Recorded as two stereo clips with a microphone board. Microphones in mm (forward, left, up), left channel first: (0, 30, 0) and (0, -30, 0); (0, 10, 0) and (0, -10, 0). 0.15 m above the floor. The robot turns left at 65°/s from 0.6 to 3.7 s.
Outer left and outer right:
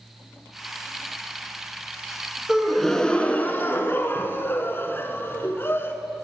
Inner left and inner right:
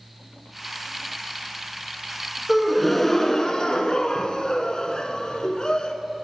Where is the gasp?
165° right, 0.8 m; by 5.9 s 115° left, 0.8 m.